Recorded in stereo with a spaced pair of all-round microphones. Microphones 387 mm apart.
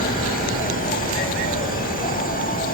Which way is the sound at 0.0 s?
20° left (ahead or behind).